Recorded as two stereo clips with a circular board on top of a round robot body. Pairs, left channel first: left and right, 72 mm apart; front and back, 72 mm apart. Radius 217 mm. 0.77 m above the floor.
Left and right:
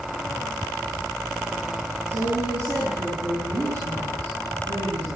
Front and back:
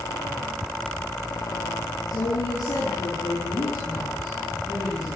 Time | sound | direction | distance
2.1 | a woman speaking | 50° right | 10 m